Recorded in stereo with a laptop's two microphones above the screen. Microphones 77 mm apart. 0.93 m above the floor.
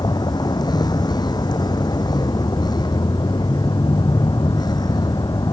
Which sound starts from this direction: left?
A vehicle, at 0.0 s.